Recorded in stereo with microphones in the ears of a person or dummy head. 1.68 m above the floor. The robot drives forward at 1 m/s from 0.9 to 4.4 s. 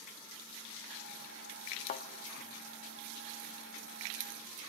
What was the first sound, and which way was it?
A thud, 45° left (ahead or behind).